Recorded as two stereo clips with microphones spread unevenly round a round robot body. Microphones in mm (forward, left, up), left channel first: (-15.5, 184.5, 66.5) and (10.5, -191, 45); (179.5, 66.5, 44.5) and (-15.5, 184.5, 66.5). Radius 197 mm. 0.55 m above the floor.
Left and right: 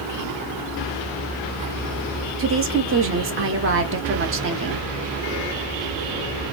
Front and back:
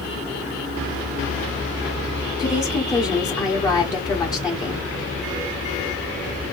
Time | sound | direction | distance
2.4 | a woman speaking | 85° right | 1.0 m